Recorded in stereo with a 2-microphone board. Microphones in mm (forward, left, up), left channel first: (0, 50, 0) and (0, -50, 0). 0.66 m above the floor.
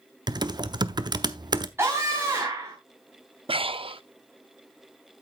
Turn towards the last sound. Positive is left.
turn(degrees=-70)  # may be behind; listen again after turning